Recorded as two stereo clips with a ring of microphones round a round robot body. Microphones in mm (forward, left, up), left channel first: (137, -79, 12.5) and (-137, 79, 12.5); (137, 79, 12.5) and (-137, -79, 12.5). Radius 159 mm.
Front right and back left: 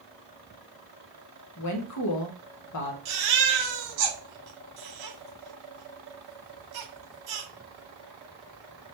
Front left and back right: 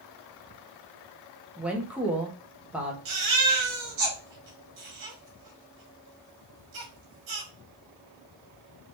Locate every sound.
1.6 s a woman speaking: 65° right, 1.2 m
3.0 s a baby crying: straight behind, 2.5 m